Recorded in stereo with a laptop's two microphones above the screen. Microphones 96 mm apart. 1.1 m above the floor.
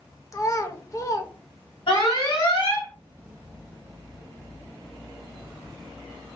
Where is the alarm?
60° left (ahead or behind), 1.8 m.